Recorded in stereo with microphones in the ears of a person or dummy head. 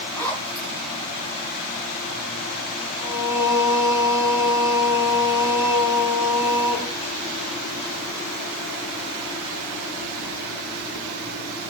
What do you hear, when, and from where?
0.1 s a zipper: 20° left (ahead or behind), 8.5 m
3.0 s singing: 70° left (ahead or behind), 2.5 m